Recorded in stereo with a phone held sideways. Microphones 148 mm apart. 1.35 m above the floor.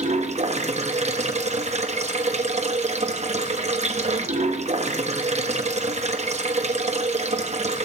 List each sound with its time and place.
0.0 s running water: 55° right (ahead or behind), 1.0 m